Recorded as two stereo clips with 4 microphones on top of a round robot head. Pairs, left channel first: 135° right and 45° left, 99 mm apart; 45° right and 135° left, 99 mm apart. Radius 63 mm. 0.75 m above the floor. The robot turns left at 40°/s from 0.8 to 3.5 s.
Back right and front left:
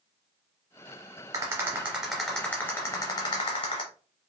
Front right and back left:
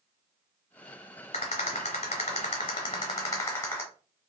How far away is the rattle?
About 0.9 m.